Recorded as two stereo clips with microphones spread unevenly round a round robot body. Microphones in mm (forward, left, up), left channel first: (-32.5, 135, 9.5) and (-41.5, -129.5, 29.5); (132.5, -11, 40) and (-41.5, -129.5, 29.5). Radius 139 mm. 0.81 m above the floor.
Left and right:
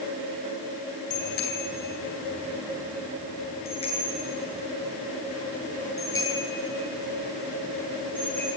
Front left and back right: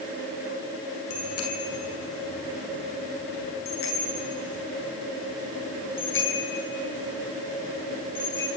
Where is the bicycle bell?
35° left, 6.5 m; by 8.5 s straight ahead, 11.5 m.